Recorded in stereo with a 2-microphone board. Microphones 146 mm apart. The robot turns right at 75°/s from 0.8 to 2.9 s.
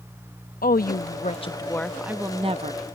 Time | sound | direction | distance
0.6 | a woman speaking | 95° left | ?